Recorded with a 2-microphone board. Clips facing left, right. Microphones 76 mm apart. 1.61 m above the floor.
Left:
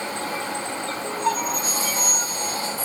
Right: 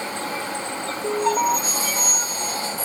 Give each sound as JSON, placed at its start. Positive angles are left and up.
{"t": 1.0, "sound": "an alarm", "side_deg": -40}